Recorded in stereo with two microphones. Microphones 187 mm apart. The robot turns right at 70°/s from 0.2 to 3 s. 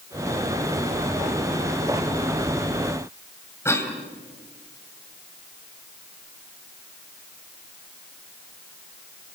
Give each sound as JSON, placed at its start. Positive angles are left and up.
{"t": 3.6, "sound": "a cough", "side_deg": 15, "distance_m": 3.5}